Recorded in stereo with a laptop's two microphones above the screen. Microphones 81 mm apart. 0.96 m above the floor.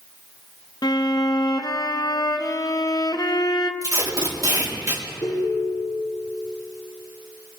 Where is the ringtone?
60° left (ahead or behind), 5.5 m.